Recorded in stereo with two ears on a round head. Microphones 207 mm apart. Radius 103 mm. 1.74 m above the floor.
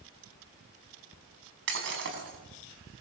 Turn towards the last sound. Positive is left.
turn(degrees=-55)  # may be behind; listen again after turning